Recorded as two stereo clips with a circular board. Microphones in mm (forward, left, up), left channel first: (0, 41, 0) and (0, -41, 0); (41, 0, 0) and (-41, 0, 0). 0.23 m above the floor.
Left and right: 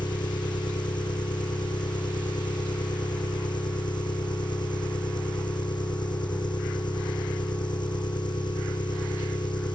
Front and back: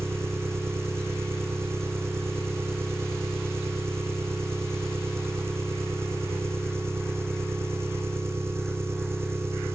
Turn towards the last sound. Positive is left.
turn(degrees=120)